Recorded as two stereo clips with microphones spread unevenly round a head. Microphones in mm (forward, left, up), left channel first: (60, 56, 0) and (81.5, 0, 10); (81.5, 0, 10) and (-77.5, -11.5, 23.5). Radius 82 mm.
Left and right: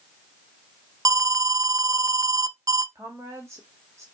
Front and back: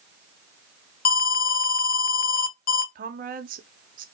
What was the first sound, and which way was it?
An alarm, 35° right.